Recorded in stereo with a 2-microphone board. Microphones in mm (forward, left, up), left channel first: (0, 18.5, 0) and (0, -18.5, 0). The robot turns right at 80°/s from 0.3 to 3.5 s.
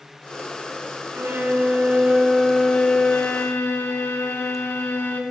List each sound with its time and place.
1.1 s a violin: 105° right, 0.8 m; by 5.2 s 85° left, 0.8 m